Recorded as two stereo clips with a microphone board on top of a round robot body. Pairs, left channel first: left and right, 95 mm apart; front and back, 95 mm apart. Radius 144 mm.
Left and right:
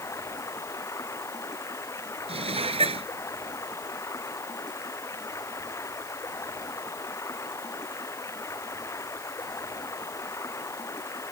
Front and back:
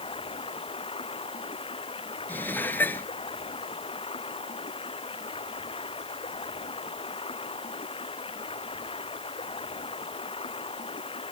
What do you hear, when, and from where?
0.0 s running water: 30° left
2.3 s dishes clattering: 70° right